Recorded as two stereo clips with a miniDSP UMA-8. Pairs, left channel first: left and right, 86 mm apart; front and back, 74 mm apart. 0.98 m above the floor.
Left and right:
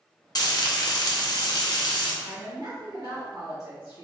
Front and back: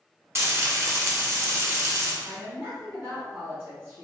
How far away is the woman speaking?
About 1.5 m.